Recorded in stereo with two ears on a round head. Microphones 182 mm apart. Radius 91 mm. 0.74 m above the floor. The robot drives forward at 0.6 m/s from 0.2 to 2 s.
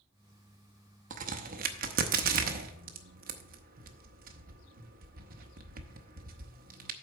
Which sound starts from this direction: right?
A crack, at 1.1 s.